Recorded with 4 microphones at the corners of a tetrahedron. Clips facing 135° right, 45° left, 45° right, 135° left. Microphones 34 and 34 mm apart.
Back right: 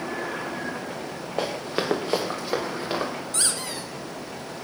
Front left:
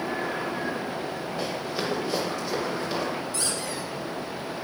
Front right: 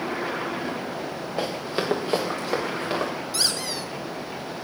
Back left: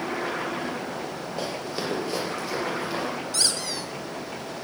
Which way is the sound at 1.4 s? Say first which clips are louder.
Back right 5 dB, front right 4 dB; 110° right.